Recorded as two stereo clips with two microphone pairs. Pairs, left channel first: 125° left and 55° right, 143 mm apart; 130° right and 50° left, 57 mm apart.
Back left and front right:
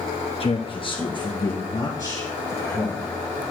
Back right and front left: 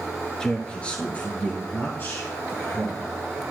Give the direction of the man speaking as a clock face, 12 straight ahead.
7 o'clock.